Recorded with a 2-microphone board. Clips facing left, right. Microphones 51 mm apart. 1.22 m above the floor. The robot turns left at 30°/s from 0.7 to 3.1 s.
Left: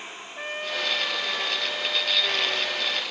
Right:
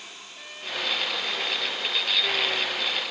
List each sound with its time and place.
0.4 s a trumpet: 125° left; by 3.0 s 55° left